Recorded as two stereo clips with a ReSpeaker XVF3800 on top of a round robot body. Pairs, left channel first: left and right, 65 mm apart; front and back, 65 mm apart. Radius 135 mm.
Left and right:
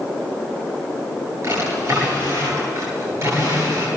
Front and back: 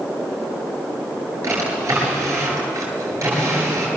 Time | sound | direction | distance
1.4 | a drawer | 140° right | 9 m